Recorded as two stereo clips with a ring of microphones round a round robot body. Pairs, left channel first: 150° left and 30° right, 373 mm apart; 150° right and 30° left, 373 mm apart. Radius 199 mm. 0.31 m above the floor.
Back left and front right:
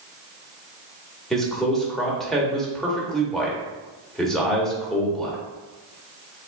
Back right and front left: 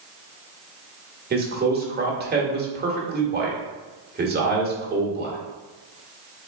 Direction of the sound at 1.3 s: 60° left.